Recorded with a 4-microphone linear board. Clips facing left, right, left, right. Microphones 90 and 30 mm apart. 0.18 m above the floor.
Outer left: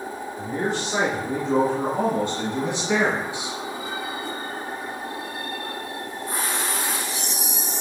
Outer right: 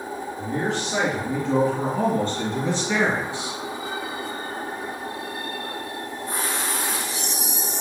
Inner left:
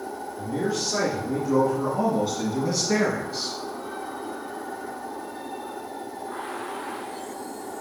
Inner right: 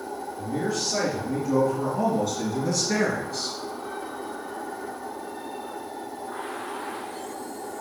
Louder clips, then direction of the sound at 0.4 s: Even, inner left 1 dB; 10° left (ahead or behind).